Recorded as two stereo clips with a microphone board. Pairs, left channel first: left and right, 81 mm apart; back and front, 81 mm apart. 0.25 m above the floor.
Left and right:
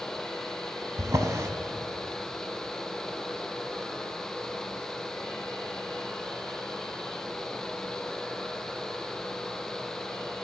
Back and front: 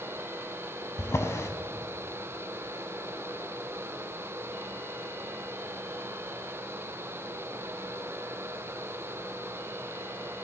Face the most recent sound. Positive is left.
turn(degrees=-135)